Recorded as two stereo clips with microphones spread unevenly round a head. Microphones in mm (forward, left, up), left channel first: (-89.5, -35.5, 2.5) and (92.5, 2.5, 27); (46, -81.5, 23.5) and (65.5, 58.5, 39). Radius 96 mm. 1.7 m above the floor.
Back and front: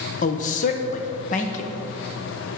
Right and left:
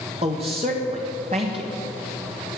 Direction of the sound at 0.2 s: 140° left.